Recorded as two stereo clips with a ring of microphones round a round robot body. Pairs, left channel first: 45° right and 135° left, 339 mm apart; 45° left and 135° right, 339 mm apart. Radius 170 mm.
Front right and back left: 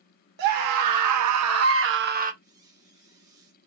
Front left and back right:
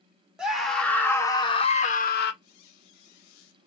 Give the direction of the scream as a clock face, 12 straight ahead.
7 o'clock.